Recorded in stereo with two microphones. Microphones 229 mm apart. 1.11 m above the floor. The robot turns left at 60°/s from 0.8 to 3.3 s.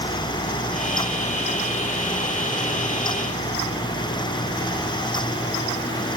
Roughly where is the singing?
I don't hear singing.